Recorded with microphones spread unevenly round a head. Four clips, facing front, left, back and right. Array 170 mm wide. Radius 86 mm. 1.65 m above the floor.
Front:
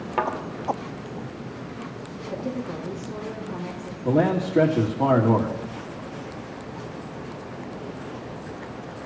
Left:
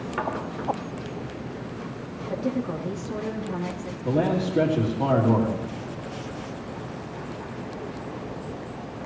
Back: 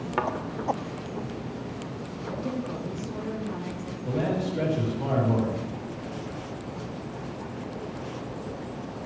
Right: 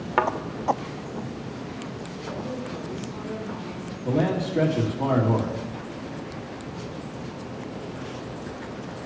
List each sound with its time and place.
0.2 s a thud: 80° right, 1.5 m
2.3 s a woman speaking: 80° left, 3.5 m
4.0 s a man speaking: 10° left, 3 m